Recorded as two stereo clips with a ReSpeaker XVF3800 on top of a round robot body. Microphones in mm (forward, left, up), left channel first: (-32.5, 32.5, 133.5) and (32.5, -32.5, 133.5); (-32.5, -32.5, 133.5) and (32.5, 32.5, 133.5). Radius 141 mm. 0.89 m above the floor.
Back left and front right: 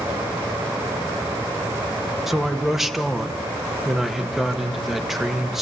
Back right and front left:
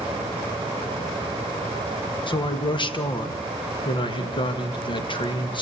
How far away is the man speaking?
About 1.7 m.